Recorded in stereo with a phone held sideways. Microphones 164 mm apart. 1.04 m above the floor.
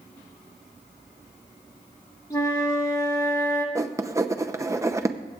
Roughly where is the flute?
Left.